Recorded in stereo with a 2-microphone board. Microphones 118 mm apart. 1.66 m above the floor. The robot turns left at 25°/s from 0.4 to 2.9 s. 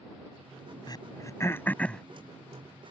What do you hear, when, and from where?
0.9 s throat clearing: 35° left (ahead or behind); by 2.0 s 5° left (ahead or behind)